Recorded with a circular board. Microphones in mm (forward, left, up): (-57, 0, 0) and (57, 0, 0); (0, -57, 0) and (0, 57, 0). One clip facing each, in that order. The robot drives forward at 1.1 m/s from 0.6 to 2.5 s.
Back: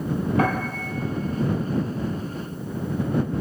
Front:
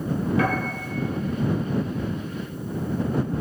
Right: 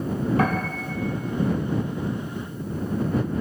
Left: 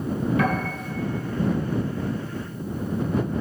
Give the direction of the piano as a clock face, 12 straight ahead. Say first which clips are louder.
Back 1 dB, even; 5 o'clock.